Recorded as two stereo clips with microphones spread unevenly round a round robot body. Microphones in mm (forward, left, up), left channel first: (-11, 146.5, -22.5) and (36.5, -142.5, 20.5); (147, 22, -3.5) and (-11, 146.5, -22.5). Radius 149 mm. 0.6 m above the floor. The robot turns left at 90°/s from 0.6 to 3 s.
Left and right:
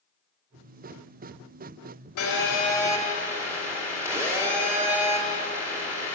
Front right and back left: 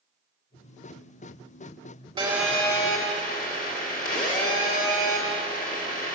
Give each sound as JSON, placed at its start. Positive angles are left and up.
{"t": 2.2, "sound": "a phone buzzing", "azimuth_deg": 80, "distance_m": 2.0}